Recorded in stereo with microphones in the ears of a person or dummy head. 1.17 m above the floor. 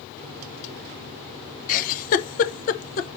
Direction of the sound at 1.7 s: 45° left (ahead or behind).